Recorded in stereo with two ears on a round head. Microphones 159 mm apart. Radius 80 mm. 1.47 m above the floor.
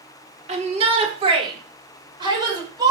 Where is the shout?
40° right (ahead or behind), 3.5 m; by 2.9 s 25° right (ahead or behind), 7 m.